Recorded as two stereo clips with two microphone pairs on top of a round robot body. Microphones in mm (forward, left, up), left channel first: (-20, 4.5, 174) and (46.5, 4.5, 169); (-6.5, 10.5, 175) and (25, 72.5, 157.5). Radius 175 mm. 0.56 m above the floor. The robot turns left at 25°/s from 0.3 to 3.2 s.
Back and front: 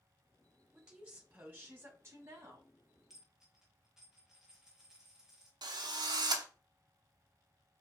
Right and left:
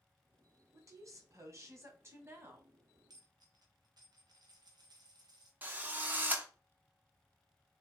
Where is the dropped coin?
85° left, 1.2 m.